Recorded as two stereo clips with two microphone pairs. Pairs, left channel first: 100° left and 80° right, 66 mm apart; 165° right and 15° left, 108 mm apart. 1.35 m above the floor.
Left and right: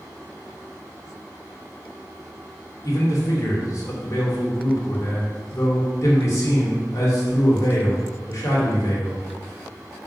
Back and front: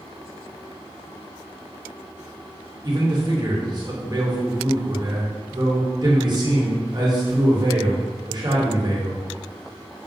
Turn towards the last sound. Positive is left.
turn(degrees=65)